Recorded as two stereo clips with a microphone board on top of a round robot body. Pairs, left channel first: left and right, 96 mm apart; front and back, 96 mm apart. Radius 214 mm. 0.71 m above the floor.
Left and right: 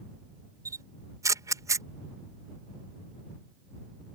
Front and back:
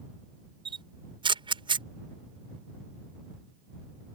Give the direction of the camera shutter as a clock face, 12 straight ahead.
5 o'clock.